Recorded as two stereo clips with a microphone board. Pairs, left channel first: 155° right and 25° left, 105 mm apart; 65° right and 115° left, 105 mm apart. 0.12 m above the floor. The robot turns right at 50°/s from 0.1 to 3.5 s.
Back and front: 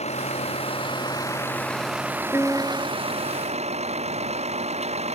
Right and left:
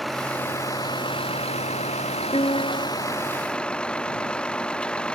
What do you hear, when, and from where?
0.0 s a vehicle: 155° right; by 5.2 s 15° left
2.3 s a piano: 90° right; by 2.9 s 65° right